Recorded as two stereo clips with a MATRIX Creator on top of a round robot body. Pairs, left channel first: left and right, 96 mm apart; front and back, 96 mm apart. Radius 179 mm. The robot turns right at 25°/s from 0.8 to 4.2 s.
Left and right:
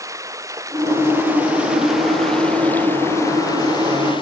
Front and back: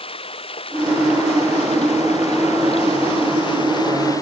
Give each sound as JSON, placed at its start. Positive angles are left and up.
{"t": 0.0, "sound": "running water", "azimuth_deg": -30}